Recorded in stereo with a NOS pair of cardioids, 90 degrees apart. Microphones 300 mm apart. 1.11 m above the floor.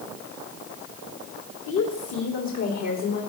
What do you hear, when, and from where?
1.7 s a woman speaking: 60° left, 2 m; by 3.2 s 65° left, 3 m